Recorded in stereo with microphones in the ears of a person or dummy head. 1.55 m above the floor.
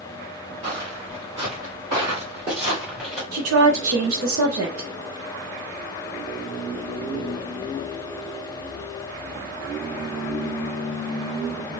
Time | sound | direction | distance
0.6 | footsteps | 35° right (ahead or behind) | 2.0 m
3.3 | a woman speaking | 75° right (ahead or behind) | 0.7 m